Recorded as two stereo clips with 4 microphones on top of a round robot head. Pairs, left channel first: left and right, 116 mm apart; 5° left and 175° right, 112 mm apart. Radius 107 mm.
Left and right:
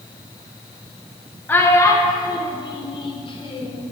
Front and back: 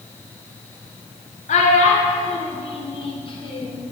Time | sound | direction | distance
1.5 | a child speaking | 15° left | 0.8 m